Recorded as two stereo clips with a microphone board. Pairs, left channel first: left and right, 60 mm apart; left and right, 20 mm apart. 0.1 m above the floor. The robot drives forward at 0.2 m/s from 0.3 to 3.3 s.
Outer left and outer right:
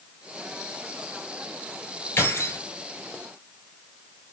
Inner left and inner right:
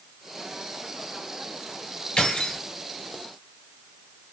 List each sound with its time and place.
2.2 s keys jangling: 45° left (ahead or behind), 1.1 m; by 2.6 s 40° left (ahead or behind), 1.2 m